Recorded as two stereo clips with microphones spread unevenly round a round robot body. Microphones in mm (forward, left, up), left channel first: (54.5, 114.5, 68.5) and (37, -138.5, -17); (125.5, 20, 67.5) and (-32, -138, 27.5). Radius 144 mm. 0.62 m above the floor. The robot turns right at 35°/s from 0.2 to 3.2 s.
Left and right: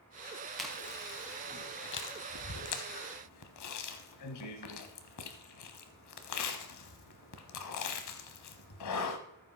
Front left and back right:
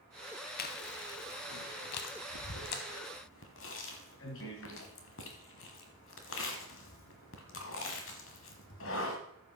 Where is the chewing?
Straight ahead, 1.2 m; by 9.2 s 90° left, 1.2 m.